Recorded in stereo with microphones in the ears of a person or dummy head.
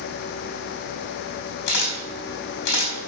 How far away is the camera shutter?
About 4 m.